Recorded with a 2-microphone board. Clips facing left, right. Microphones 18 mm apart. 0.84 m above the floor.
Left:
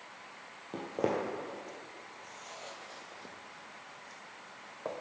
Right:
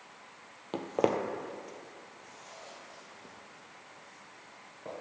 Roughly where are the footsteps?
Right.